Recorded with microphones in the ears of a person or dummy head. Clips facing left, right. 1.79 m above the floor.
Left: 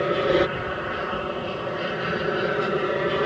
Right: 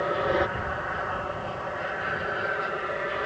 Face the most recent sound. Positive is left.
turn(degrees=55)  # may be behind; listen again after turning